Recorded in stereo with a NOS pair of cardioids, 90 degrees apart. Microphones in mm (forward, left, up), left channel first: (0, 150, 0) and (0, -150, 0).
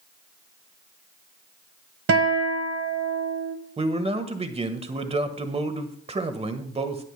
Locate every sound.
2.1 s a guitar: 50° right, 1.3 m
3.8 s a man speaking: 20° right, 1.4 m